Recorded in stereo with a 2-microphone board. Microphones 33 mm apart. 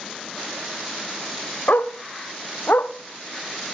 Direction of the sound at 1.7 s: 75° left (ahead or behind).